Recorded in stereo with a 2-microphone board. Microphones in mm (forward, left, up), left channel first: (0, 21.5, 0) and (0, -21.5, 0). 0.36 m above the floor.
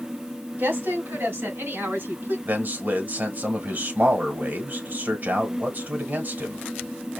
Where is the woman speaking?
65° right (ahead or behind), 2.5 m.